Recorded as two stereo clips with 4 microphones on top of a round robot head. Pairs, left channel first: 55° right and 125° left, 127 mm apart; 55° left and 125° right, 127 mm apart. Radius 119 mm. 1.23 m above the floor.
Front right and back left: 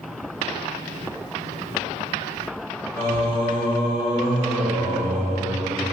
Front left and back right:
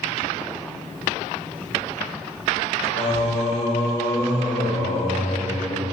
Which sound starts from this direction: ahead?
Singing, at 3.0 s.